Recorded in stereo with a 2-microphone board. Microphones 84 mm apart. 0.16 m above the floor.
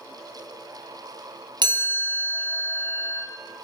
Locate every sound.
1.6 s a chime: 65° right (ahead or behind), 1.6 m